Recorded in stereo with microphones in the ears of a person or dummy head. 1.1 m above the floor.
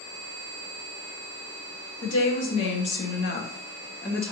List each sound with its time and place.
2.0 s a woman speaking: 75° left (ahead or behind), 1.7 m; by 4.3 s centre (ahead or behind), 0.7 m